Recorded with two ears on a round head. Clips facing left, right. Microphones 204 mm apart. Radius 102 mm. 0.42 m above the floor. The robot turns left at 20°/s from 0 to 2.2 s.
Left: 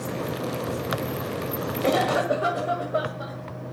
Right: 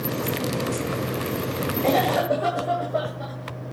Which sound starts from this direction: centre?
A cough, at 1.8 s.